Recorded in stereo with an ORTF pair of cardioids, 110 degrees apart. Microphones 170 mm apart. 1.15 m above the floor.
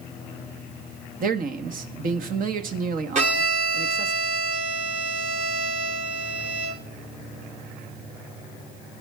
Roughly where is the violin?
Ahead right.